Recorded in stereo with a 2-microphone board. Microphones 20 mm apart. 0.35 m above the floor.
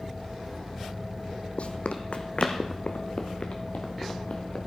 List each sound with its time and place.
1.6 s running footsteps: 70° left (ahead or behind), 0.9 m; by 4.6 s 65° left (ahead or behind), 2.5 m